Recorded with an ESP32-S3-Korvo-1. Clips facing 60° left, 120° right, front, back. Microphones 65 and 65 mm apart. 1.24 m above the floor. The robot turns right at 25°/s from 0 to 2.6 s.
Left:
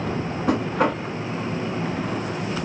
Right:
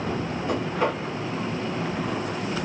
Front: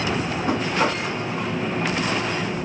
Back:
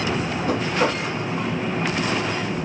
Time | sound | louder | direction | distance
0.5 | knocking | left 4 dB, even | 60° left | 1.7 m